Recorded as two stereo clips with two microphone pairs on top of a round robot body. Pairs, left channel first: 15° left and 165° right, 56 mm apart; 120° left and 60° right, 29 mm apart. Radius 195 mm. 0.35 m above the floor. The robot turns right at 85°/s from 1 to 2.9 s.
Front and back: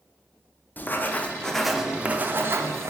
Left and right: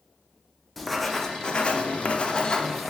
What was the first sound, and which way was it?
Writing, 40° left.